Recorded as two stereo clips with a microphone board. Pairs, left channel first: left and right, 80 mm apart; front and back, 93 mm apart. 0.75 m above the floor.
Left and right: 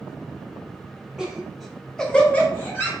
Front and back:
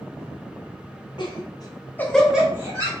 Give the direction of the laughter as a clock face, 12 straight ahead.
12 o'clock.